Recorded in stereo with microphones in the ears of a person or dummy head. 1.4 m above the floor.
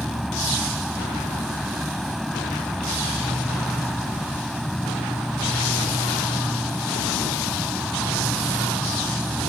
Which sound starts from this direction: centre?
An insect, at 0.0 s.